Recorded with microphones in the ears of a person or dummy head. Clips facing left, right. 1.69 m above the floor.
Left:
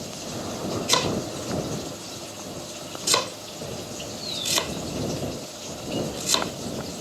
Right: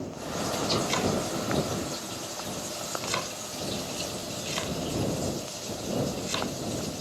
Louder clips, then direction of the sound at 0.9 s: Left 1 dB; 85° left.